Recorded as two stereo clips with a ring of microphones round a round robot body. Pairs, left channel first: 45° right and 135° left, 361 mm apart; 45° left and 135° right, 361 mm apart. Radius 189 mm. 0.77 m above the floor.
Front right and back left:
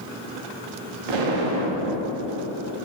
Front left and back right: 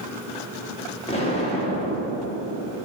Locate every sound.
1.1 s an explosion: 120° left, 0.9 m